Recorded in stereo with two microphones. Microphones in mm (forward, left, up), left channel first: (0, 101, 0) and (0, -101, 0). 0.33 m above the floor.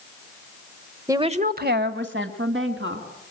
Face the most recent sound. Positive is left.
turn(degrees=-65)  # may be behind; listen again after turning